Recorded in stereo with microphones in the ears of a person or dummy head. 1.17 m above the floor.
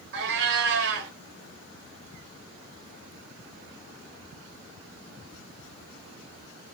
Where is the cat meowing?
65° right (ahead or behind), 1.6 m.